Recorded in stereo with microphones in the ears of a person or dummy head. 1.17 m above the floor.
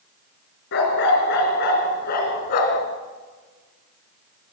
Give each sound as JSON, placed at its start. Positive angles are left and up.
{"t": 0.7, "sound": "a dog barking", "side_deg": 60, "distance_m": 4.0}